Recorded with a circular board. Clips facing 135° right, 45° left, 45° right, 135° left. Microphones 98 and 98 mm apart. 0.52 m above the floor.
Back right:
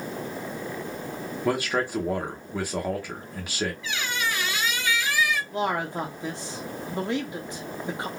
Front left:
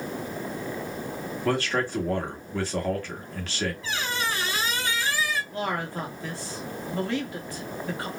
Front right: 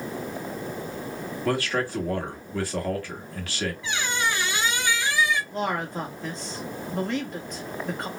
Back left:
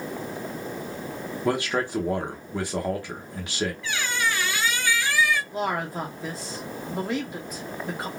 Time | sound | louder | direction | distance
1.4 | a man speaking | even, back left 1 dB | 170° left | 1.0 m
3.8 | a squeak | even, even | 15° left | 0.6 m
5.5 | a man speaking | back right 3 dB, even | 150° right | 0.7 m